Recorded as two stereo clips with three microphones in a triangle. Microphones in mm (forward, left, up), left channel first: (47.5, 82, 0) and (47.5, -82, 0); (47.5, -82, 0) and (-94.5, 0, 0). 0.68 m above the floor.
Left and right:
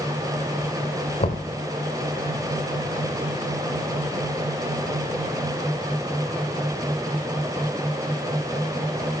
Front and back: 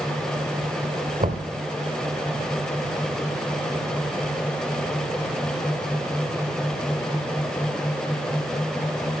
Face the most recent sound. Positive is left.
turn(degrees=120)